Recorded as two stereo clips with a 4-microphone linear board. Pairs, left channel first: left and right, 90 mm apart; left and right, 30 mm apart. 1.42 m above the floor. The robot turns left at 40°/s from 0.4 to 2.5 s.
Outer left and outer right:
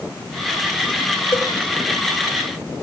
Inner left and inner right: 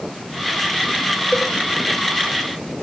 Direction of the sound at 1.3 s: 35° left (ahead or behind).